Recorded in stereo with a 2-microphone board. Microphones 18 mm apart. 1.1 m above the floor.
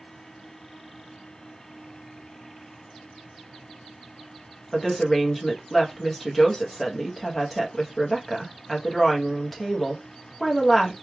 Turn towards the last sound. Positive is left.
turn(degrees=5)  # may be behind; listen again after turning